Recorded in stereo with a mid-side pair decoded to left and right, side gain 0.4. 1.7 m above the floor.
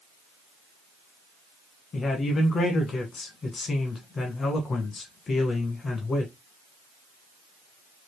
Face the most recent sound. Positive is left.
turn(degrees=50)